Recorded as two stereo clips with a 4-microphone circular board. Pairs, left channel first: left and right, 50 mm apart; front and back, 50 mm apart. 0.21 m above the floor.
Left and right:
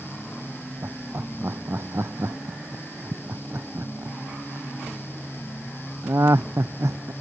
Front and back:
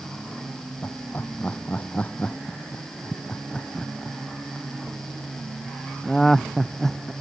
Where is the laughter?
50° right; by 7.1 s 85° right.